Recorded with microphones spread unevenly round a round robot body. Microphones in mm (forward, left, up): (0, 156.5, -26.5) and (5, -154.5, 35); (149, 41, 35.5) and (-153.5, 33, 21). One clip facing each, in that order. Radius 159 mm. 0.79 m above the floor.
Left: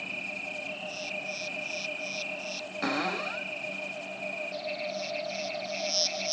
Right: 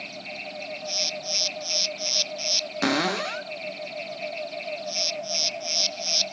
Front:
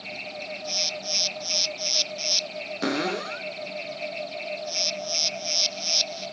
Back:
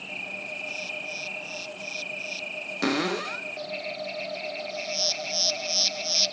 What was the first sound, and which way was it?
A cupboard door, 100° right.